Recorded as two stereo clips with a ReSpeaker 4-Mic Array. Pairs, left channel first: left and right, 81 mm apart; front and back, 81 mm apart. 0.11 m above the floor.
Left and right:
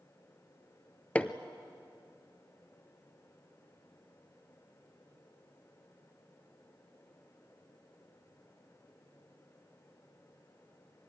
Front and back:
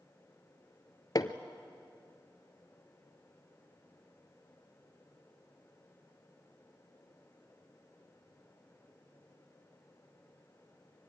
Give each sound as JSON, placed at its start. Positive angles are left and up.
{"t": 1.1, "sound": "hammering", "azimuth_deg": 20, "distance_m": 0.9}